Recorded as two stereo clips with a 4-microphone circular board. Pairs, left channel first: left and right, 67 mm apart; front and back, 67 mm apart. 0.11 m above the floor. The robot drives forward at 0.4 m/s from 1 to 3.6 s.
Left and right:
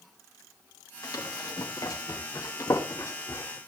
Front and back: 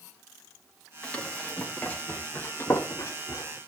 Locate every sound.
1.0 s running footsteps: 70° left, 4 m; by 3.6 s 40° left, 2.5 m